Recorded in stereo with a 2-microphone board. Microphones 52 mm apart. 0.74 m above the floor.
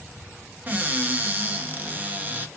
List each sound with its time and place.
0.7 s a cupboard door: 30° right (ahead or behind), 0.6 m